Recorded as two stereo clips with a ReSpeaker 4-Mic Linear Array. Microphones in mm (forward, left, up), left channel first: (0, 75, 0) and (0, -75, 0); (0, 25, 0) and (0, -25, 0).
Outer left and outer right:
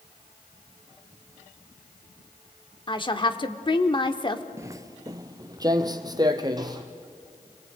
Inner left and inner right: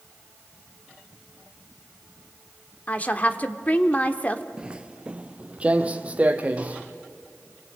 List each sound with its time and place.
2.9 s a woman speaking: 30° left (ahead or behind), 1.0 m
4.6 s footsteps: 20° right (ahead or behind), 0.5 m; by 6.8 s 25° right (ahead or behind), 1.8 m